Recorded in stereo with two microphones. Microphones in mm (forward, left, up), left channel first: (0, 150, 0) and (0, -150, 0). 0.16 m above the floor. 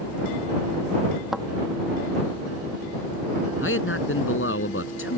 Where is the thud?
Centre (ahead or behind).